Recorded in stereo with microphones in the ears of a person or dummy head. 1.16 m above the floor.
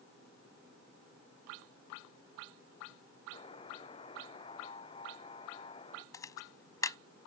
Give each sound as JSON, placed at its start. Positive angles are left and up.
{"t": 3.3, "sound": "a buzzer", "side_deg": 40}
{"t": 6.1, "sound": "a camera shutter", "side_deg": 15}